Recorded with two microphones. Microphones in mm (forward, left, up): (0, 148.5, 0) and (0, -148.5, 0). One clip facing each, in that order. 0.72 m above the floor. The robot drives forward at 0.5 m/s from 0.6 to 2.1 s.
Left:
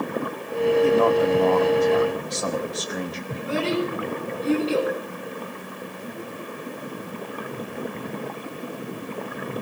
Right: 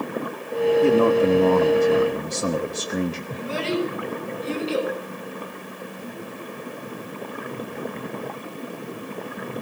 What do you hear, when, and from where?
0.8 s a man speaking: 30° right (ahead or behind), 1.1 m
3.3 s a child speaking: 65° left (ahead or behind), 6 m